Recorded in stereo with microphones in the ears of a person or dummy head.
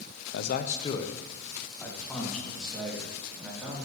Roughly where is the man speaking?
Left.